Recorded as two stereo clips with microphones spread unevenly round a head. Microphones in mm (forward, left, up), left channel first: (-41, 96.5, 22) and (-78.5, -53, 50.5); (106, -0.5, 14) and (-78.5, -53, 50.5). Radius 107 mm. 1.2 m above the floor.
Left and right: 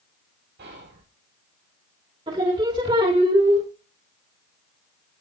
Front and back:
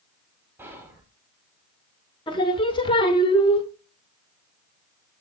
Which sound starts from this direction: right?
Whispering, at 0.6 s.